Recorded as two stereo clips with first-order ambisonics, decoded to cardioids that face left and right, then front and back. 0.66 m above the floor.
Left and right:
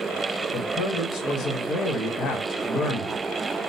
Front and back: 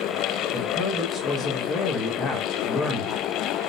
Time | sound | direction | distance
0.5 | a man speaking | 50° left | 1.1 m